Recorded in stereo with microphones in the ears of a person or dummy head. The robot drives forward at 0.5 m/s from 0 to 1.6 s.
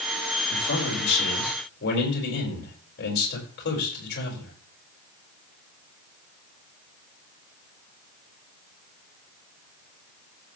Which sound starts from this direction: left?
A man speaking, at 0.5 s.